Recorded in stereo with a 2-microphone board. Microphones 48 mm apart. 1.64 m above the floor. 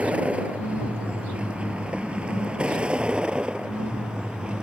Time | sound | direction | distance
0.0 | a vehicle | 30° right (ahead or behind) | ?